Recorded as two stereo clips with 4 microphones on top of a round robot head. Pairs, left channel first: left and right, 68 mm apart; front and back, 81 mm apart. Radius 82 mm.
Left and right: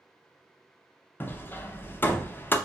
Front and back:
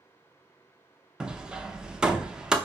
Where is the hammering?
110° left, 0.7 m.